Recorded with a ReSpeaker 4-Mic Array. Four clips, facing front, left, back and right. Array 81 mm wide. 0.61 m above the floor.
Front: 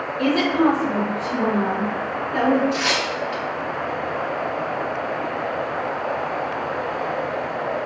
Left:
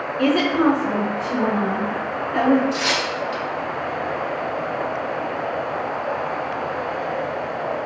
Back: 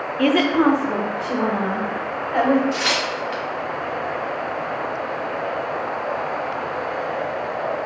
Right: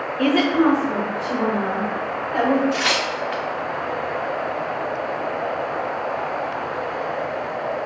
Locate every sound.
0.2 s a woman speaking: 165° right, 0.8 m; by 2.6 s 175° left, 3 m
2.7 s tearing paper: 105° right, 0.9 m